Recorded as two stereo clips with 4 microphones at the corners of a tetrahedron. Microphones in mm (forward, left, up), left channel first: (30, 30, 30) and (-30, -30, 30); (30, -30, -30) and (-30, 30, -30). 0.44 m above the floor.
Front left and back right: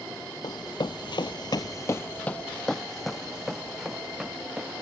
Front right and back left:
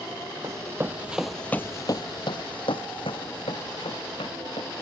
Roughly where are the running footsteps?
Left.